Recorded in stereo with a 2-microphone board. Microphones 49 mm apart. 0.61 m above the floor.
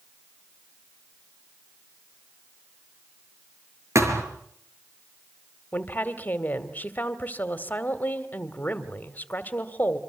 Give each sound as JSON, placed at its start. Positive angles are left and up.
{"t": 4.0, "sound": "a thud", "side_deg": -70, "distance_m": 5.0}
{"t": 5.7, "sound": "a woman speaking", "side_deg": 35, "distance_m": 2.0}